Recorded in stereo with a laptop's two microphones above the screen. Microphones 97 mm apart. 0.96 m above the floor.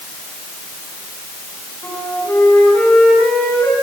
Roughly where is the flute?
Centre.